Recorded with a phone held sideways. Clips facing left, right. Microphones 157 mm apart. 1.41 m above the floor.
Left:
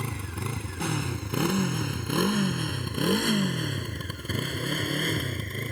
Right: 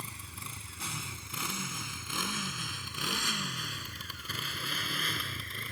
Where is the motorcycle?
70° left (ahead or behind); by 5.7 s 45° left (ahead or behind).